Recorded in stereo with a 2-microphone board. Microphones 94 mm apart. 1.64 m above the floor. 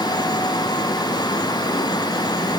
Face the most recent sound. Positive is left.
No sound to turn to.